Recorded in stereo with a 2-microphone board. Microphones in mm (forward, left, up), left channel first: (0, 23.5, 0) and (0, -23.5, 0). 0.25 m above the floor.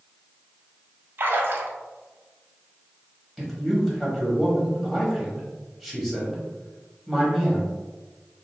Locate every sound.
1.2 s a splash: 50° right (ahead or behind), 0.7 m
3.4 s a man speaking: 5° left (ahead or behind), 1.0 m